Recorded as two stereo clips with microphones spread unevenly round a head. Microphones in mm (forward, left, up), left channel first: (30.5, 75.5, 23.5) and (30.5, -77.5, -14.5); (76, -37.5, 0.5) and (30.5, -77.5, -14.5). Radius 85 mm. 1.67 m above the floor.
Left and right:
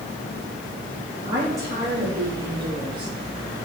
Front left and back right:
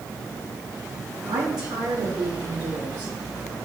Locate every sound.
1.2 s a woman speaking: 165° right, 4 m; by 3.1 s 150° right, 3.5 m